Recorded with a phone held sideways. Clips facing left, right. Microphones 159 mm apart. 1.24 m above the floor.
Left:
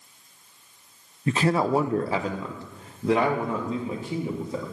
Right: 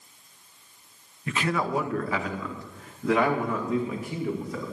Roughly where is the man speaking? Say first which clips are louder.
Left 5 dB; left.